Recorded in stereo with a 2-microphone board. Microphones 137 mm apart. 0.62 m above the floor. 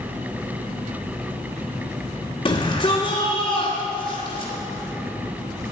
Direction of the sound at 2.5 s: 45° left (ahead or behind).